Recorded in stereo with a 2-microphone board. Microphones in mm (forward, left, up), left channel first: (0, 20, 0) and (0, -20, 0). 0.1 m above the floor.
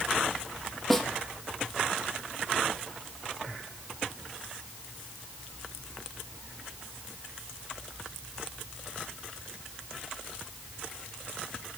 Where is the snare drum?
5° left (ahead or behind), 1.6 m.